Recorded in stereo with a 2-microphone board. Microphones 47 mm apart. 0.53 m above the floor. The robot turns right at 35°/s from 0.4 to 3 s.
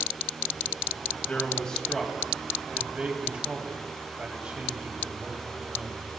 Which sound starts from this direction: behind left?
A man speaking, at 1.3 s.